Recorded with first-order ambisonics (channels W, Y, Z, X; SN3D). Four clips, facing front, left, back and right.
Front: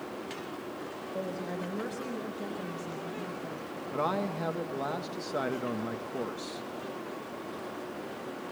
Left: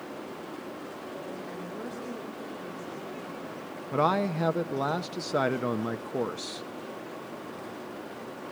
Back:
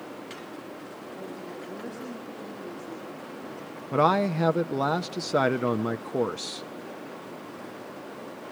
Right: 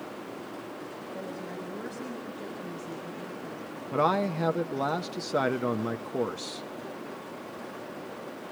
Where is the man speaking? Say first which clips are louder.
Even, back 9 dB; 175° left, 0.5 m.